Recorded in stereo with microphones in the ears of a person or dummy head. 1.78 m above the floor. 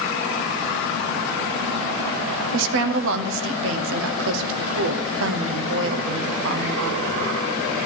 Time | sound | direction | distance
2.5 | a woman speaking | 75° right (ahead or behind) | 0.9 m